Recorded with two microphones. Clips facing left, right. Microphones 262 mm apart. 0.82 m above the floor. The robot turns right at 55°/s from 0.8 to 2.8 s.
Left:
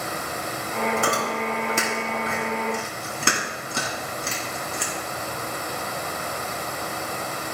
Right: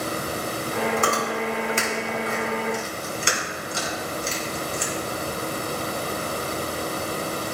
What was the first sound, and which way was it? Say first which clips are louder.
Chewing: right 1 dB; 5° left (ahead or behind).